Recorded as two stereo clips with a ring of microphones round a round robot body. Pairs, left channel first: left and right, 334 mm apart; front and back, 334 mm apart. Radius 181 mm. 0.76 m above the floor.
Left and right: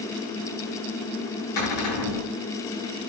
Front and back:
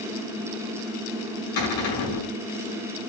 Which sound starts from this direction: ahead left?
A cupboard door, at 1.6 s.